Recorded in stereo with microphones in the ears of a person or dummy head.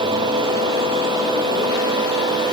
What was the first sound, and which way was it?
Only background noise.